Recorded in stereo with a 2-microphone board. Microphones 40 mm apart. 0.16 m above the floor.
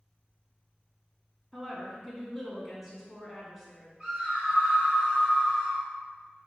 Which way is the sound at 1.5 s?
10° right (ahead or behind).